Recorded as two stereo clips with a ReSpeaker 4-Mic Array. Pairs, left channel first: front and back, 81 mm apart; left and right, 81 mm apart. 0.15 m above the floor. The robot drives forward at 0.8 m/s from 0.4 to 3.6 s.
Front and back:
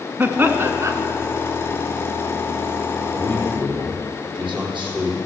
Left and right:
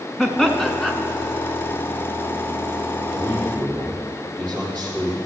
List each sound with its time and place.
0.2 s laughter: 170° left, 1.2 m; by 0.9 s 175° left, 1.4 m
3.1 s a man speaking: 160° left, 5 m